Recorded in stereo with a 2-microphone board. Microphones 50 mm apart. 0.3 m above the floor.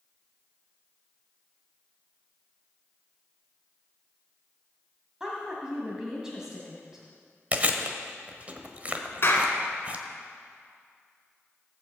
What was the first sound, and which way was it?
A woman speaking, 10° right (ahead or behind).